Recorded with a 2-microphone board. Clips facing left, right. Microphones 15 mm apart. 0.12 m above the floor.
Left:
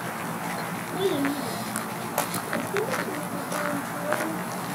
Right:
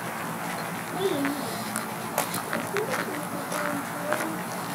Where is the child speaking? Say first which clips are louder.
Left 1 dB; 15° left (ahead or behind), 0.9 m; by 4.4 s 30° left (ahead or behind), 3 m.